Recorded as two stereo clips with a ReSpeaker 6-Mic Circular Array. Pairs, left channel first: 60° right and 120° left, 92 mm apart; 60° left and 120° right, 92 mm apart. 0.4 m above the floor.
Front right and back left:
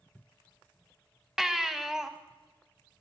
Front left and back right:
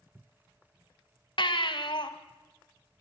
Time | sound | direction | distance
1.4 | a baby crying | 35° left | 1.3 m